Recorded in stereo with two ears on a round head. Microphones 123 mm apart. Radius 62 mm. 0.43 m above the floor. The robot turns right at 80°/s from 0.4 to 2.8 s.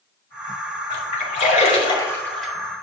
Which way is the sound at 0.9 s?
45° left (ahead or behind).